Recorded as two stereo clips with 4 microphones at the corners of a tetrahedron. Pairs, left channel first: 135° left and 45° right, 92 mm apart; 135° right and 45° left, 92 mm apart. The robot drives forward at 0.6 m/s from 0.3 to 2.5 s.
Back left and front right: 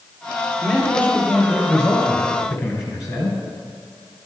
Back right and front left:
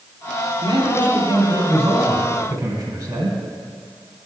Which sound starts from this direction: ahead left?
A man speaking, at 0.6 s.